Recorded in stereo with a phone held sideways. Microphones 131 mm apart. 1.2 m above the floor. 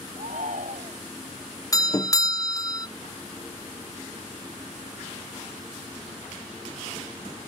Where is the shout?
75° right (ahead or behind).